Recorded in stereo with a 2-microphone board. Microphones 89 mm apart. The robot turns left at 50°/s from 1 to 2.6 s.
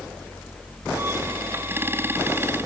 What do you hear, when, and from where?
Only background noise.